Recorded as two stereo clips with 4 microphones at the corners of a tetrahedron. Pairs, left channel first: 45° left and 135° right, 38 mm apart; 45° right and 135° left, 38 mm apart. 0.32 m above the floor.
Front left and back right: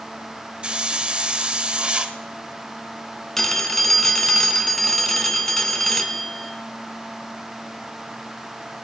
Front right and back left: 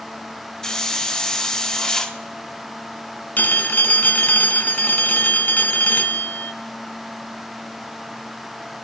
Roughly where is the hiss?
Right.